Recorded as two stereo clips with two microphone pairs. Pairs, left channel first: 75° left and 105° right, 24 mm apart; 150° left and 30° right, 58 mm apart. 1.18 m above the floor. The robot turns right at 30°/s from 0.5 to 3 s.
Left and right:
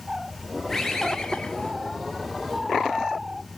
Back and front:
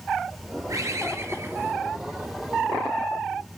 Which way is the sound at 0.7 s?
5° right.